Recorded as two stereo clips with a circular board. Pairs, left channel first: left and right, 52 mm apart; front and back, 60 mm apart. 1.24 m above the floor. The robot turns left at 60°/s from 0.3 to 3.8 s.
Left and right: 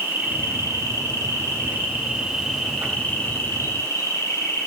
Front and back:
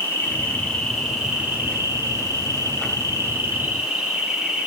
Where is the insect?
50° right, 3 m; by 4.7 s 100° left, 3 m.